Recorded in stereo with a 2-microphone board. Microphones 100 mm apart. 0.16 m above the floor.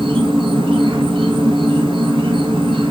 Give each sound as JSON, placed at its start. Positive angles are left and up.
{"t": 0.0, "sound": "an insect", "side_deg": -60, "distance_m": 0.7}